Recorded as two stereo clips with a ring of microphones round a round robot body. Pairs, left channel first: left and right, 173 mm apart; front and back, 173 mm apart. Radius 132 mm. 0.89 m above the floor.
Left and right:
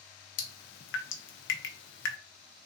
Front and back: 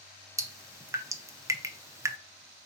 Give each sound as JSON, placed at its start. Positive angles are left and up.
{"t": 0.4, "sound": "dripping", "azimuth_deg": 105, "distance_m": 0.6}